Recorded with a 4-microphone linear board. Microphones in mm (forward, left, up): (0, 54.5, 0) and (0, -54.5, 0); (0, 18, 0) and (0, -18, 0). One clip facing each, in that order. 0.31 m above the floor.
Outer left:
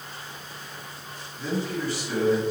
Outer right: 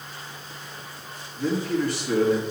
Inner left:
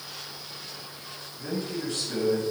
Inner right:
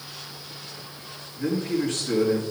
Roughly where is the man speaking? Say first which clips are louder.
Outer right 5 dB, inner right 7 dB; right.